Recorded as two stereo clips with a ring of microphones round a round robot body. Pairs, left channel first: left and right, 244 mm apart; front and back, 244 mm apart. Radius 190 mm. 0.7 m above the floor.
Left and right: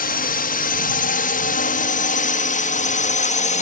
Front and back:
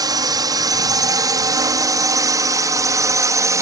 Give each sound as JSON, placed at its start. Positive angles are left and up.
{"t": 0.0, "sound": "a drone", "azimuth_deg": 115}